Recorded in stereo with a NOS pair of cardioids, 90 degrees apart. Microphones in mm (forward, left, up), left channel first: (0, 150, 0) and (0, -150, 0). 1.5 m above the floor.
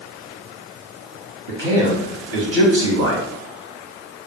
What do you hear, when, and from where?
1.5 s a man speaking: 50° right, 1.0 m